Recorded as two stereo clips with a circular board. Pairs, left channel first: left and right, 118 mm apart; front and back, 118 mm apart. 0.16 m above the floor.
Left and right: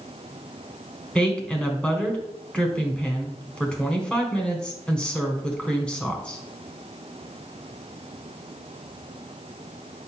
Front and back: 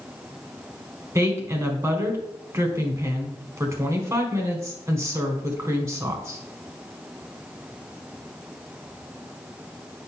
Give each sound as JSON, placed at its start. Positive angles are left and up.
{"t": 1.1, "sound": "a woman speaking", "azimuth_deg": 160, "distance_m": 1.5}